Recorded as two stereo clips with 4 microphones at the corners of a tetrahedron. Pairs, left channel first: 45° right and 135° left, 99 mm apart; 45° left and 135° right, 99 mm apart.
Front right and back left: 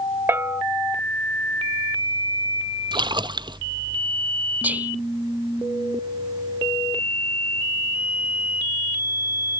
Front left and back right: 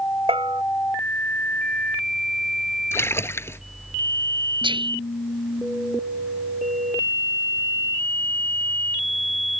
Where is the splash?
105° left.